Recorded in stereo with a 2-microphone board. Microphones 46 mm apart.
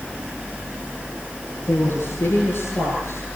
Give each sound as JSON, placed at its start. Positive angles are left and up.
{"t": 1.7, "sound": "a woman speaking", "side_deg": 75, "distance_m": 9.0}